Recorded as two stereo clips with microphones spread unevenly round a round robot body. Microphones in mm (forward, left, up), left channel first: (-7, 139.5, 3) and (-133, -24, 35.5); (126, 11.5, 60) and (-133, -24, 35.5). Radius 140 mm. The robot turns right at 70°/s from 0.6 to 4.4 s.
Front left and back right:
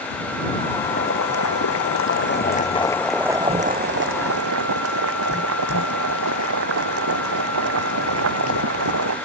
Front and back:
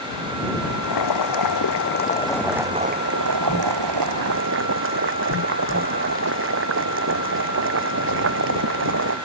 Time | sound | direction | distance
0.8 | boiling | 15° right | ?